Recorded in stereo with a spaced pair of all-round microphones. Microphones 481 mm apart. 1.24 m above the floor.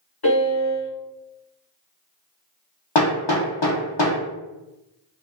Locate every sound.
0.2 s a piano: 50° left (ahead or behind), 1.5 m
3.0 s hammering: 60° left (ahead or behind), 0.7 m